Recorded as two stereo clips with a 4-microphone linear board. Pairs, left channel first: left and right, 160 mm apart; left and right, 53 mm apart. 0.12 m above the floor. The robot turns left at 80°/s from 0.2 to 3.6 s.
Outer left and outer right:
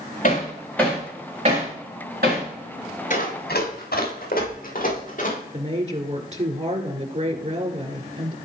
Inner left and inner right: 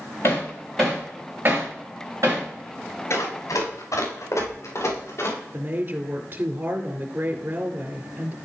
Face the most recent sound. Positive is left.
turn(degrees=-45)  # may be behind; listen again after turning